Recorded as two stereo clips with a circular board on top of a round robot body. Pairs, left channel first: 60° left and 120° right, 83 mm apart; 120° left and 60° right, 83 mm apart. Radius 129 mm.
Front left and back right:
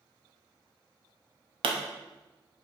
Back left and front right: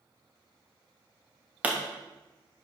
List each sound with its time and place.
1.6 s a pop: 135° right, 0.8 m